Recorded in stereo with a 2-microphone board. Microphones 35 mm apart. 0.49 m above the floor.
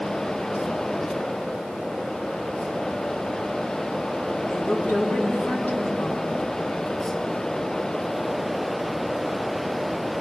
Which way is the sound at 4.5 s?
60° left (ahead or behind).